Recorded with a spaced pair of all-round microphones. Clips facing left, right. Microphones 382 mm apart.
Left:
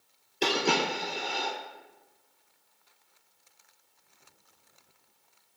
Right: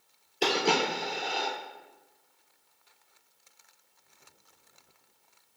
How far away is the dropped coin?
About 1.8 m.